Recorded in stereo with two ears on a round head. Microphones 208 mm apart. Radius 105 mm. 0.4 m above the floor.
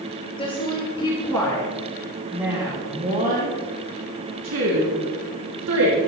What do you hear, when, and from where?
0.4 s a woman speaking: 20° left (ahead or behind), 5.5 m; by 6.0 s 80° right, 5 m